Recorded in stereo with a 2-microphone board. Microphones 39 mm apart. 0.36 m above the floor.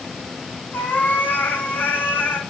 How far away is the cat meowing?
About 1.5 m.